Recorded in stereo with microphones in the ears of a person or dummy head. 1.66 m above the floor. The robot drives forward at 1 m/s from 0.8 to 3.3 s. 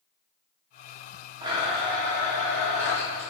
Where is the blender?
25° right (ahead or behind), 1.4 m; by 3.3 s 10° right (ahead or behind), 3 m.